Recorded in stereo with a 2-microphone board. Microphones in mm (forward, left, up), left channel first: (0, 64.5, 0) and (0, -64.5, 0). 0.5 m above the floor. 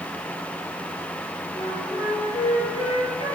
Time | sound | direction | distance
1.5 | a flute | 40° left (ahead or behind) | 3.5 m